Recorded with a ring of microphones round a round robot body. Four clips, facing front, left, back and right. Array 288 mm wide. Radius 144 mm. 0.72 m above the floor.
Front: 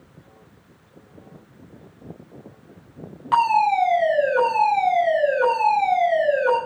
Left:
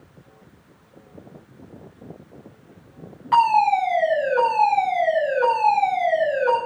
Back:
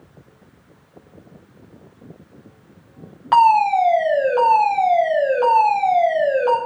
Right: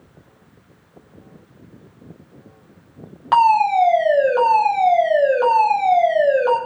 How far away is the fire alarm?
About 6.5 m.